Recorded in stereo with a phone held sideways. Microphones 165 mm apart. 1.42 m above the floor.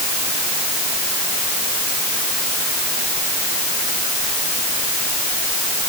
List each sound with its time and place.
Only background noise.